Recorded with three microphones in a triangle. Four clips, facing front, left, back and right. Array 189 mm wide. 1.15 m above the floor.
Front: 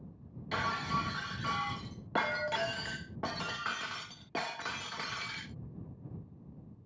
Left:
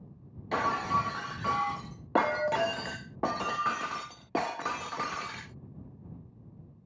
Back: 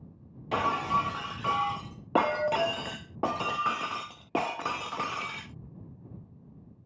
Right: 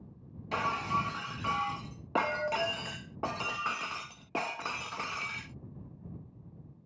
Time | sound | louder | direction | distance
0.5 | breaking glass | left 3 dB, back 7 dB | 140° left | ?